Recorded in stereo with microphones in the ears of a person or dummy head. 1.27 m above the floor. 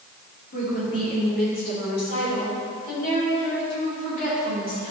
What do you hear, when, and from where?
0.5 s a woman speaking: 55° left (ahead or behind), 3.5 m; by 4.9 s 50° left (ahead or behind), 7 m